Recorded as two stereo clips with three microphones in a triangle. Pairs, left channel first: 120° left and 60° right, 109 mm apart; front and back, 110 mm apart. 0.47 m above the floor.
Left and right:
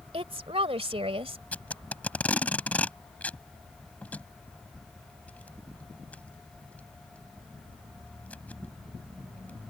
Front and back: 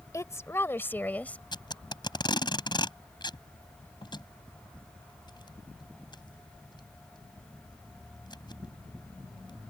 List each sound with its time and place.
0.1 s a woman speaking: 60° right; by 1.4 s 75° right
1.5 s tape being pulled: 45° left